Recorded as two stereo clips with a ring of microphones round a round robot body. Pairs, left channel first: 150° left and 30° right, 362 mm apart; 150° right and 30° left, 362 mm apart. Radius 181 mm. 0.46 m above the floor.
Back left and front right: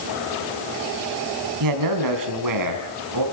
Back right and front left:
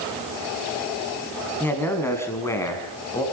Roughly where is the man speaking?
Ahead right.